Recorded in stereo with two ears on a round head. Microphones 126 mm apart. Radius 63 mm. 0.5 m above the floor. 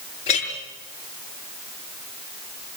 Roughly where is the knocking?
No knocking in this recording.